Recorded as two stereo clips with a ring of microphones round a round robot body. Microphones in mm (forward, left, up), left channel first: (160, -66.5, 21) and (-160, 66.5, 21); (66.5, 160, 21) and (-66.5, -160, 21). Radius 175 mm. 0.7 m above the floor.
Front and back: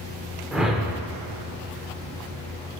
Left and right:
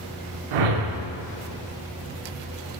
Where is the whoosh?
115° right, 0.8 m.